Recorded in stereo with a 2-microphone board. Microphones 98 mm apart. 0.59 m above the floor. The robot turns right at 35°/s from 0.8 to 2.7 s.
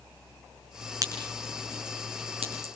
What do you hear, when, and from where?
1.0 s a crack: 35° right (ahead or behind), 6 m; by 2.7 s 85° right, 6 m